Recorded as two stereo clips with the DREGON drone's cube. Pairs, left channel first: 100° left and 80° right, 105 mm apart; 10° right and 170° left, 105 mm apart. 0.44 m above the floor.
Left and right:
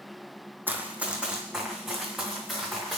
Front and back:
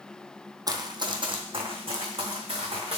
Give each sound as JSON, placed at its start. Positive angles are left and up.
{"t": 0.7, "sound": "running footsteps", "azimuth_deg": -145, "distance_m": 0.7}